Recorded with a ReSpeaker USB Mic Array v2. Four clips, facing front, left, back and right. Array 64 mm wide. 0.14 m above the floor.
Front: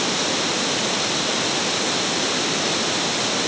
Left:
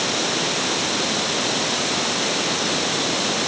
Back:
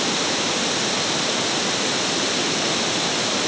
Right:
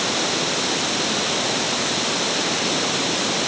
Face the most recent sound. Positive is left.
No sound to turn to.